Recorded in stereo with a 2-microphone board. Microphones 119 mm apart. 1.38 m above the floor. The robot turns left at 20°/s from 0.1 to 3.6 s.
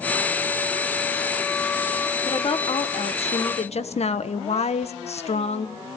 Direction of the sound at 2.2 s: 40° left (ahead or behind).